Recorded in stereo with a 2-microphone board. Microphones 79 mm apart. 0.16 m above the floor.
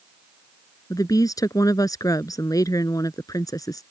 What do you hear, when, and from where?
0.9 s a woman speaking: 50° left (ahead or behind)